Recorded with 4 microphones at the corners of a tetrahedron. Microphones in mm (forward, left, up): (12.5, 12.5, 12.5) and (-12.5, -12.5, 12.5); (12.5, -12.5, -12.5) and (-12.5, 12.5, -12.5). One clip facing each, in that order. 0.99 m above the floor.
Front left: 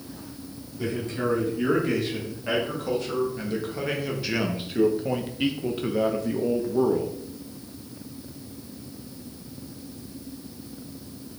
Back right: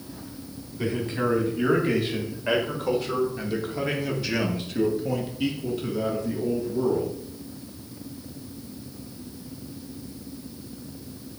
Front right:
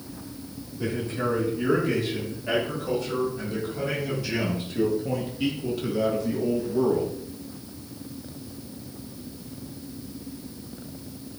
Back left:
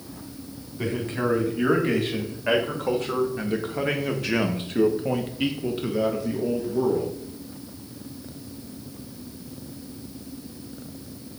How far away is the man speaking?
About 3 m.